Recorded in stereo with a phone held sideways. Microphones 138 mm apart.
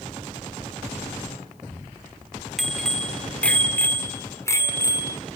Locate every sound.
2.6 s a bicycle bell: centre (ahead or behind), 2.5 m; by 5.2 s 25° left (ahead or behind), 3 m